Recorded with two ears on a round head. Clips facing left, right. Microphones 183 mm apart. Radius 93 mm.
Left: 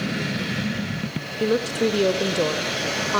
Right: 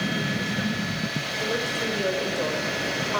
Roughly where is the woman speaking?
Left.